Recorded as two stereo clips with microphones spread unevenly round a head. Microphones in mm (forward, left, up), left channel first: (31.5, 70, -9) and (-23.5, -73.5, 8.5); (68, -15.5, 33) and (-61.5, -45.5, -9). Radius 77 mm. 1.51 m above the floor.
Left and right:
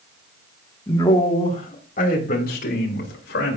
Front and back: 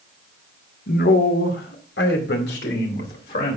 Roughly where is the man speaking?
Ahead.